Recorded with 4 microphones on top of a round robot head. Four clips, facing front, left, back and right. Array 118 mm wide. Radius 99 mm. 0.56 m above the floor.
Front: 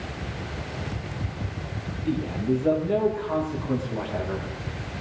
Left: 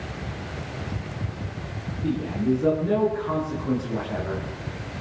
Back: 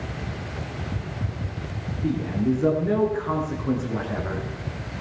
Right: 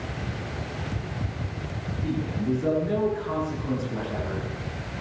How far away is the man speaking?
About 10 m.